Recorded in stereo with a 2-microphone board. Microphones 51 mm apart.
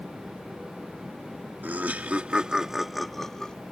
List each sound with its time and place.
1.6 s laughter: 40° right (ahead or behind); by 3.6 s 15° left (ahead or behind)